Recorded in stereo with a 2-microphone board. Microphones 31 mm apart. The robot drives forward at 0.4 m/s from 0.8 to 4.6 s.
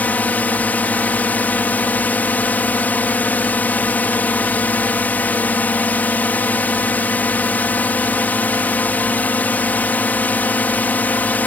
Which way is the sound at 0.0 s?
75° left (ahead or behind).